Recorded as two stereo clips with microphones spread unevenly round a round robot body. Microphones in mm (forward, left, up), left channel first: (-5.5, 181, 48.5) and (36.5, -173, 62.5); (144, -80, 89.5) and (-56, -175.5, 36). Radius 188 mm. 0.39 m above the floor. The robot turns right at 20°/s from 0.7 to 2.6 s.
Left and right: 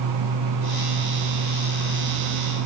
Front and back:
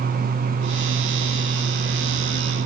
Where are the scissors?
I don't hear scissors.